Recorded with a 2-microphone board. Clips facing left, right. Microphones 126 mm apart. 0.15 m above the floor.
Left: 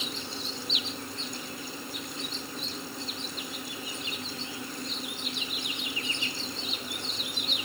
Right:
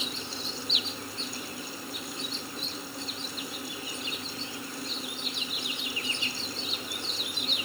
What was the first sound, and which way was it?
Only background noise.